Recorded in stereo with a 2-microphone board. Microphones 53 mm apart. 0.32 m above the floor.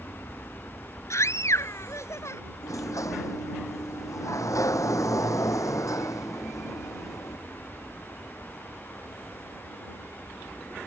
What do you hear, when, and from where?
0.0 s an aircraft: 50° left (ahead or behind); by 10.9 s 65° left (ahead or behind)
1.1 s a scream: 60° left (ahead or behind)
2.6 s a sliding door: 80° left